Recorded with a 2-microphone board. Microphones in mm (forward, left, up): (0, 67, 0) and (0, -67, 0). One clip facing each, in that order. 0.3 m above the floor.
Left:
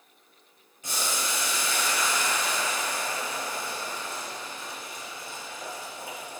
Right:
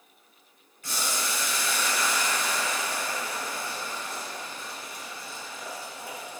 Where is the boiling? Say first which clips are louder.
Even; 20° left (ahead or behind), 1.2 m.